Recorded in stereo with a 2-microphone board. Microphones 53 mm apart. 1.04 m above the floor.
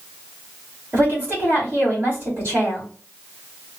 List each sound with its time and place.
0.9 s a woman speaking: 35° right (ahead or behind), 3 m